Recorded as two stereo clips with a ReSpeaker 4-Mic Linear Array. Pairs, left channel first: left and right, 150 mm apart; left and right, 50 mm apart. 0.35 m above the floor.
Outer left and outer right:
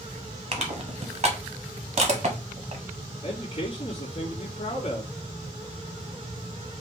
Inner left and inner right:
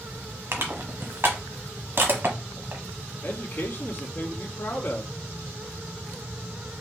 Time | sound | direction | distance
0.5 | crushing | 50° right (ahead or behind) | 1.2 m
3.2 | a man speaking | 40° left (ahead or behind) | 2 m